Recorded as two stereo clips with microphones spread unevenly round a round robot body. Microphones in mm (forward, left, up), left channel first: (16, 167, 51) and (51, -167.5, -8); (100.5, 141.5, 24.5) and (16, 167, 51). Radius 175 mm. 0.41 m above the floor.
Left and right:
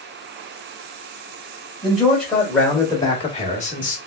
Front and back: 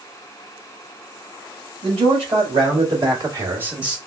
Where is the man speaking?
170° right, 2 m; by 4.0 s 40° left, 1.1 m.